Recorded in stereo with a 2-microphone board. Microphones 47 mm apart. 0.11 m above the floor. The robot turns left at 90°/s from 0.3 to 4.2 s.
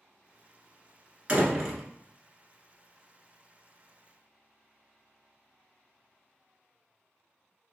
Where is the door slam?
135° right, 1.2 m; by 1.8 s 175° left, 1.2 m.